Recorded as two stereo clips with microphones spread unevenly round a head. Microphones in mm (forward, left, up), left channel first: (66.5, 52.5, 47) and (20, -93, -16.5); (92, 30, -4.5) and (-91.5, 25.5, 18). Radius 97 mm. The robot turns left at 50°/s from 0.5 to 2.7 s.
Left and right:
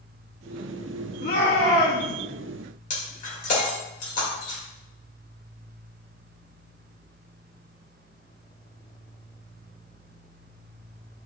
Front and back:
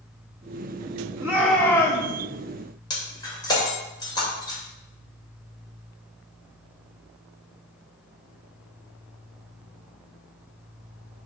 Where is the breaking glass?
70° left, 2.5 m.